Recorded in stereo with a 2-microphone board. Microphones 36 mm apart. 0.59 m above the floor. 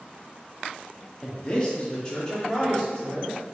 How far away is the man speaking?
About 1.0 m.